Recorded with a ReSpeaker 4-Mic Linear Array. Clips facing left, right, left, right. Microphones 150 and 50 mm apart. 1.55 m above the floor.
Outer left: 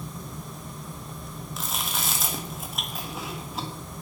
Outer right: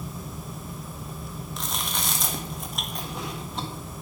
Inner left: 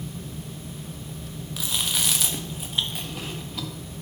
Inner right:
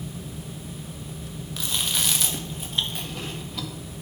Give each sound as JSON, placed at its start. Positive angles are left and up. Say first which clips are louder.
{"t": 1.6, "sound": "chewing", "louder": "even, even", "side_deg": 5, "distance_m": 1.5}